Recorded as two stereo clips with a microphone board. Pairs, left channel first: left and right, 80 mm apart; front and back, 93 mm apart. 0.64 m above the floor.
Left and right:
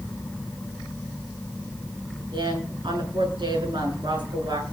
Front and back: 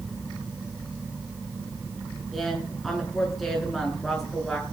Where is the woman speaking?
90° right, 8.5 m.